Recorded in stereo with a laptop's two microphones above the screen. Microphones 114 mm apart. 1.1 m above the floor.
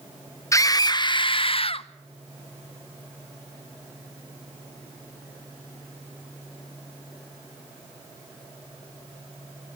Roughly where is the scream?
Left.